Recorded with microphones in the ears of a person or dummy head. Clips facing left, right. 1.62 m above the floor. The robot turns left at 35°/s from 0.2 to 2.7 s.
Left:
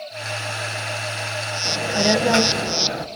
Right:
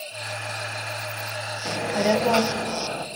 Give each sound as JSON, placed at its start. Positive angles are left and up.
{"t": 1.6, "sound": "a child speaking", "azimuth_deg": -175, "distance_m": 1.0}